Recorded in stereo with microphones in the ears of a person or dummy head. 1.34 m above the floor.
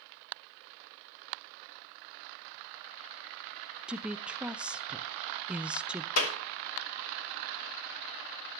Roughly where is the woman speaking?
Centre.